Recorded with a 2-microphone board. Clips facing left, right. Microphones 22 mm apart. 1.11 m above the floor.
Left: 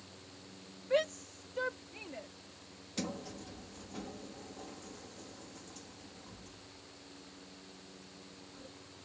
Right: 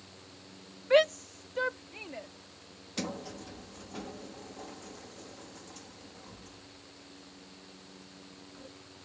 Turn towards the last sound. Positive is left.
turn(degrees=-20)  # may be behind; listen again after turning